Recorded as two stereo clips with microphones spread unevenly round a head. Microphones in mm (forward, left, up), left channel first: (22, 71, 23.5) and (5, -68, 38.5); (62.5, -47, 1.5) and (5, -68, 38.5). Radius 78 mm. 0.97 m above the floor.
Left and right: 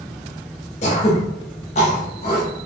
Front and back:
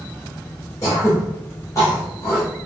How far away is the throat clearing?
About 0.5 m.